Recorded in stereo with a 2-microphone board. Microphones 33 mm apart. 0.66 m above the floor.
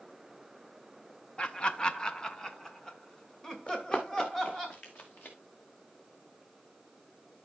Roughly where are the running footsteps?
Left.